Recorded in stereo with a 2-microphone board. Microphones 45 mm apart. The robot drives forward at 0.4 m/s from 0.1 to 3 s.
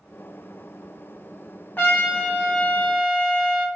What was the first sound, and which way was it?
A trumpet, 45° left (ahead or behind).